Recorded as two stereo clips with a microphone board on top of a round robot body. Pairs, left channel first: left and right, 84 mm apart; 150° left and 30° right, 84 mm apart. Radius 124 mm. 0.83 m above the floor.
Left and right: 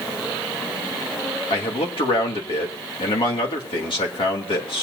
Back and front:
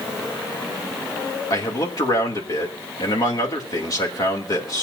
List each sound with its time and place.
1.5 s a man speaking: 105° left, 2.5 m